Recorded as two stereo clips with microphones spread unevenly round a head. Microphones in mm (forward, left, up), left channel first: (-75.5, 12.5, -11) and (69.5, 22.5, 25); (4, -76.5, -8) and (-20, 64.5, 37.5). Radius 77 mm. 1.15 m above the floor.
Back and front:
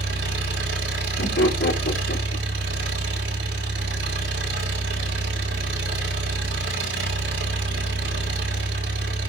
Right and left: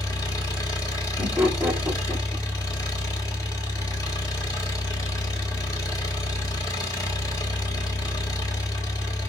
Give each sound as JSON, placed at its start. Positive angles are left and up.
{"t": 0.0, "sound": "an engine running", "azimuth_deg": -10, "distance_m": 4.5}
{"t": 1.2, "sound": "laughter", "azimuth_deg": 180, "distance_m": 2.5}